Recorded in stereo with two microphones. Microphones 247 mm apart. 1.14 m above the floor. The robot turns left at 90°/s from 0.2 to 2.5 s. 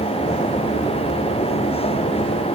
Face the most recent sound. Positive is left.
No sound to turn to.